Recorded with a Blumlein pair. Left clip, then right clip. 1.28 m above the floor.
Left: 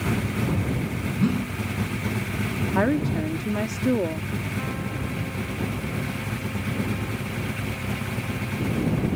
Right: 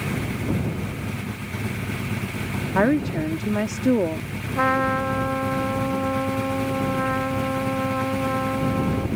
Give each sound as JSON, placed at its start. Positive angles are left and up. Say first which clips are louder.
{"t": 1.2, "sound": "a whoosh", "louder": "left 5 dB", "azimuth_deg": 55}
{"t": 2.8, "sound": "a woman speaking", "louder": "right 3 dB", "azimuth_deg": -10}
{"t": 4.5, "sound": "a trumpet", "louder": "right 11 dB", "azimuth_deg": -50}